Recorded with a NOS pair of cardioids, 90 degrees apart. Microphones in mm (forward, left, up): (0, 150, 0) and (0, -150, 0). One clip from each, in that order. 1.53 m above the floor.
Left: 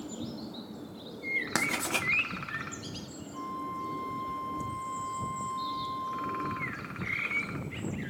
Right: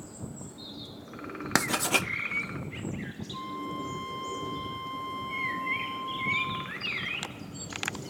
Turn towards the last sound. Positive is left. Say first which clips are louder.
# even
turn(degrees=-50)